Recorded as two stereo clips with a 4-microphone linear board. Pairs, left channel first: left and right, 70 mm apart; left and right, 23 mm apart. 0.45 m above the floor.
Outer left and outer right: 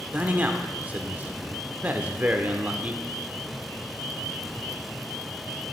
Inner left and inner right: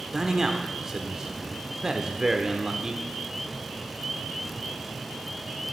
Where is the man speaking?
25° right (ahead or behind), 1.0 m.